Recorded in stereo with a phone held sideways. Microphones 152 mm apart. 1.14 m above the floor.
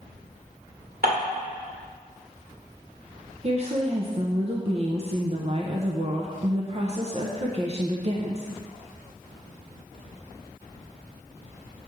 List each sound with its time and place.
1.0 s dishes clattering: 75° right (ahead or behind), 2.5 m
3.4 s a woman speaking: 45° right (ahead or behind), 0.7 m